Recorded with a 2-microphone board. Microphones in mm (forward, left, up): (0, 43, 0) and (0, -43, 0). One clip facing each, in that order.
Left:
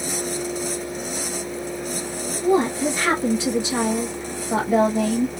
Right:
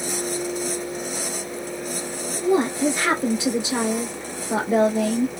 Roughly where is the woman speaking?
Right.